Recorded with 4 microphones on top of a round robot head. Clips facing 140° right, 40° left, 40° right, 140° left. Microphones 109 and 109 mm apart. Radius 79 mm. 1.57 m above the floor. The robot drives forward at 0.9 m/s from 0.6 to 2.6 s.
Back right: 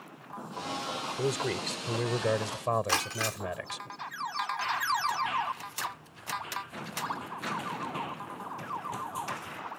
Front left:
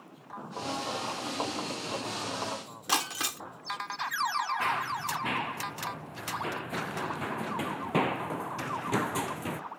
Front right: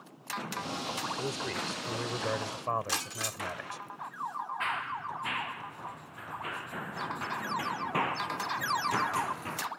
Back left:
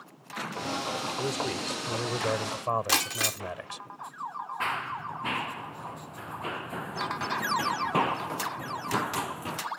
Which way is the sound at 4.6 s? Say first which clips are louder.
Back right 1 dB, back left 5 dB; 85° left.